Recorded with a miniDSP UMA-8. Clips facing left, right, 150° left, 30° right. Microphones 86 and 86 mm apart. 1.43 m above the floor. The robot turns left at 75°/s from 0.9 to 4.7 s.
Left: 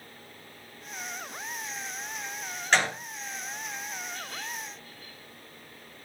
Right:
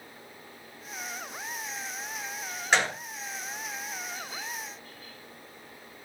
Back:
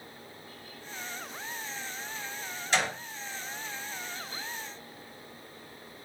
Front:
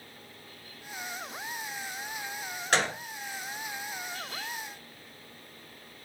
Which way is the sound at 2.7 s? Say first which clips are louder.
Even, front 2 dB; 10° right.